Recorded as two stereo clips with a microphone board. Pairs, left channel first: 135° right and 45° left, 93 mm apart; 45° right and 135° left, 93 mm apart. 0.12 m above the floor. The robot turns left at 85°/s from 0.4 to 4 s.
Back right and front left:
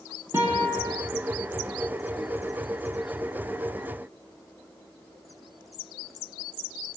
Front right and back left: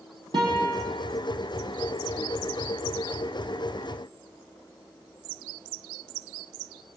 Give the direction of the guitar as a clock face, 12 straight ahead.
8 o'clock.